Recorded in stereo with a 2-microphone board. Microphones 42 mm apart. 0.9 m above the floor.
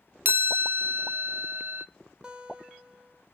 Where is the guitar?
20° right (ahead or behind), 0.9 m.